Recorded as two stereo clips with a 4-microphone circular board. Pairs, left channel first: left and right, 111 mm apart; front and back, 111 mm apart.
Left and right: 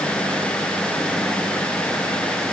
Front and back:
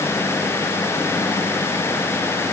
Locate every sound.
Only background noise.